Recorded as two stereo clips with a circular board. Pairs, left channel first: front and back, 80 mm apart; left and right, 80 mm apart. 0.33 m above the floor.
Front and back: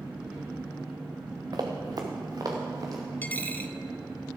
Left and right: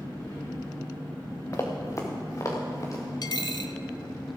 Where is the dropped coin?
70° left, 0.6 m.